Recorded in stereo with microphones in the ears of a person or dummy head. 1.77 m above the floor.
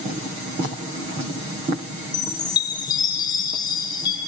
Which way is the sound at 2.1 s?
25° left (ahead or behind).